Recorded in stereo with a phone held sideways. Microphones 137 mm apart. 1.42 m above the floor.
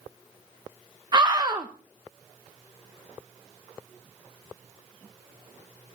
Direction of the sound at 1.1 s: 30° right (ahead or behind).